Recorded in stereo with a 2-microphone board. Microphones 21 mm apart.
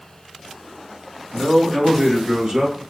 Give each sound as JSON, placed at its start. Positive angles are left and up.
{"t": 1.3, "sound": "a man speaking", "side_deg": -35, "distance_m": 1.2}